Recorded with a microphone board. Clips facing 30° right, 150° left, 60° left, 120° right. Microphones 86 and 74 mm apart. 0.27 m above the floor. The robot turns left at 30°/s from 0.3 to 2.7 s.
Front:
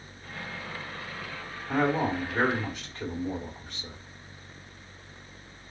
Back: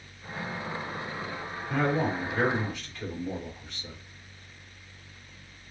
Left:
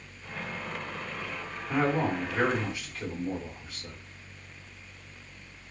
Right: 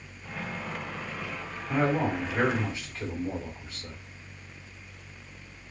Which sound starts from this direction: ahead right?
A man speaking, at 1.7 s.